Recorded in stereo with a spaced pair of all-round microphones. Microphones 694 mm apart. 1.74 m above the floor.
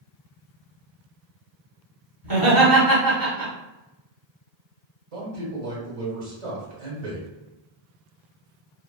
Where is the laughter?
30° right (ahead or behind), 1.2 m.